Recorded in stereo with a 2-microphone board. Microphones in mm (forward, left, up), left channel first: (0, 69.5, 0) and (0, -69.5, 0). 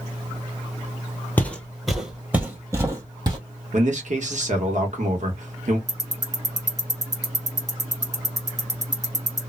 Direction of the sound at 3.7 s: 60° right (ahead or behind).